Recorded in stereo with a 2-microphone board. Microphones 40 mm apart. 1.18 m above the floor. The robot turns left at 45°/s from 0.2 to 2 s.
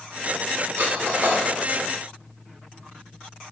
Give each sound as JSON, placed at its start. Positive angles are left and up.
{"t": 0.8, "sound": "cutlery clinking", "side_deg": -80, "distance_m": 2.0}